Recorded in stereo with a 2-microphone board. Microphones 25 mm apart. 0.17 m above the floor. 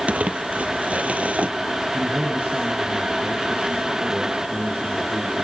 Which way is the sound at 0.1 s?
70° right (ahead or behind).